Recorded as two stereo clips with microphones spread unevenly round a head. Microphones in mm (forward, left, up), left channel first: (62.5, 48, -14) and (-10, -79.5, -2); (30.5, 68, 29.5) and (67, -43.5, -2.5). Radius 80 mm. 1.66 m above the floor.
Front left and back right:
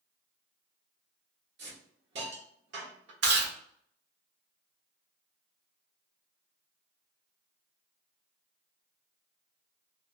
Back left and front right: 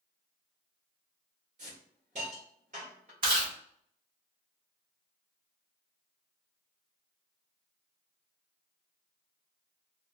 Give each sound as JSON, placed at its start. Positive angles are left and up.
{"t": 1.6, "sound": "a hiss", "azimuth_deg": -120, "distance_m": 1.1}
{"t": 3.2, "sound": "chewing", "azimuth_deg": -135, "distance_m": 1.0}